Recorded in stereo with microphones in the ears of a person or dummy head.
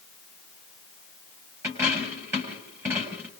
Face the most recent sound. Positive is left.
turn(degrees=-15)  # may be behind; listen again after turning